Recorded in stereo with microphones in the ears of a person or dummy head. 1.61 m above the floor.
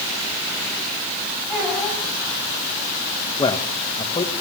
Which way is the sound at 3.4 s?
20° left (ahead or behind).